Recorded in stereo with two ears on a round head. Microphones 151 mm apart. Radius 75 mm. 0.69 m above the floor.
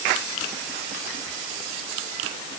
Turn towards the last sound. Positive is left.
No sound to turn to.